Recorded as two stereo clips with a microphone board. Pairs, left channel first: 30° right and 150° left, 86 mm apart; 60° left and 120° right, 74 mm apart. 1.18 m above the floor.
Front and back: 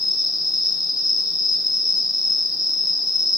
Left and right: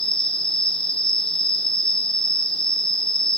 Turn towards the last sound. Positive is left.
turn(degrees=-20)